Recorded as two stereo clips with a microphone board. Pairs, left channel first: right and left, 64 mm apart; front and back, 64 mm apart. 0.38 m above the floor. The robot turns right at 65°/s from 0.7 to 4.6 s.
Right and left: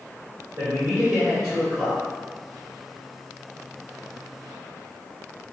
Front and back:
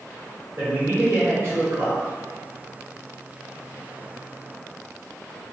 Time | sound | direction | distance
0.6 | a man speaking | 135° left | 1.6 m